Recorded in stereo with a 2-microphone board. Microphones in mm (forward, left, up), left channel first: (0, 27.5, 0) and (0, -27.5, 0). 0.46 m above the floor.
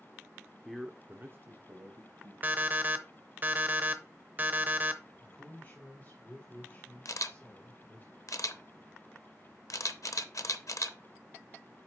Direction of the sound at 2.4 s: 35° right (ahead or behind).